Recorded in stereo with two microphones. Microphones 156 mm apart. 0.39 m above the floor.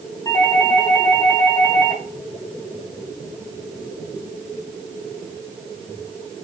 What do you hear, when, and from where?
0.2 s a doorbell: 25° left (ahead or behind), 4 m